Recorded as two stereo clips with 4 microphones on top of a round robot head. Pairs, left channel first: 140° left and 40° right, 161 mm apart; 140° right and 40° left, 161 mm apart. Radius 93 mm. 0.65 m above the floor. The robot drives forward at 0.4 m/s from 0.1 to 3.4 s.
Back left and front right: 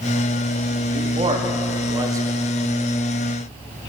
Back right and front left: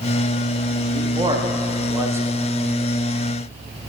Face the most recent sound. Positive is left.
turn(degrees=-165)